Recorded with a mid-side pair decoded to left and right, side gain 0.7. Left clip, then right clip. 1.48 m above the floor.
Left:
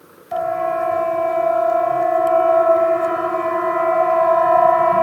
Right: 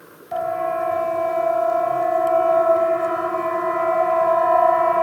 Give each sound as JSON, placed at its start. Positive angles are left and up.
{"t": 0.3, "sound": "a siren", "azimuth_deg": 15}